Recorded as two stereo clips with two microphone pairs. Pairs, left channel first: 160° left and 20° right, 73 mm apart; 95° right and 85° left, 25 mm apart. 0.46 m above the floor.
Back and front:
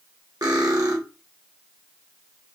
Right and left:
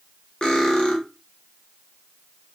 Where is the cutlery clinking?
40° right, 0.9 m.